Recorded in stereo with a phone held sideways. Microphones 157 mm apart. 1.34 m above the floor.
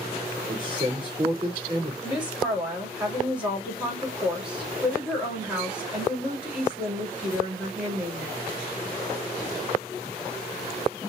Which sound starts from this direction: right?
A man speaking, at 0.5 s.